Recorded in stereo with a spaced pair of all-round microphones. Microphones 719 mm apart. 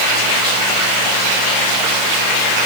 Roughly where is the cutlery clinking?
I don't hear cutlery clinking.